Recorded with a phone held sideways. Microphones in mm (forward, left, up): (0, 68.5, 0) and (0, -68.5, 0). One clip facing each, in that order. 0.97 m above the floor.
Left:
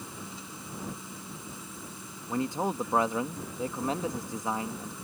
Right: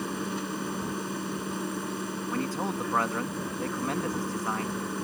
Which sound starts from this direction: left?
A man speaking, at 2.3 s.